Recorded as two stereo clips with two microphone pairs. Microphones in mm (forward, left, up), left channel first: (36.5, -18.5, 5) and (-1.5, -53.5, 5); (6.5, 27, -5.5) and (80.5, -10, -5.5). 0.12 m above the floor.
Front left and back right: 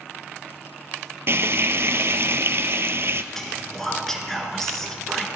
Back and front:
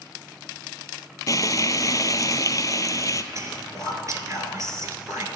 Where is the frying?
165° right, 0.6 m.